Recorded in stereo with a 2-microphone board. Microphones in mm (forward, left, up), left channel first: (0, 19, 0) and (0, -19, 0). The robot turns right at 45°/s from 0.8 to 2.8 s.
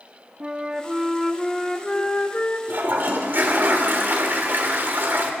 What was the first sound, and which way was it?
A flute, 25° right.